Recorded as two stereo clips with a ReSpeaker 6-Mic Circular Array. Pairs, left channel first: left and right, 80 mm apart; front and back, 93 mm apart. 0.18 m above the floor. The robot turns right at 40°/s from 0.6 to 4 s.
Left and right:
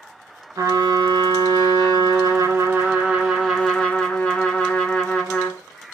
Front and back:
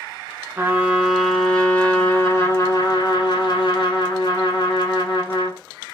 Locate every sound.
0.6 s a trumpet: 115° right, 0.8 m; by 5.6 s 20° left, 0.8 m